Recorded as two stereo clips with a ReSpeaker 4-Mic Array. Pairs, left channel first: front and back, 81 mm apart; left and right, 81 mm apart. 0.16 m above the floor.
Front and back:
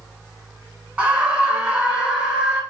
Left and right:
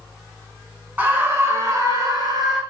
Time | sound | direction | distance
1.0 | a scream | 130° right | 1.2 m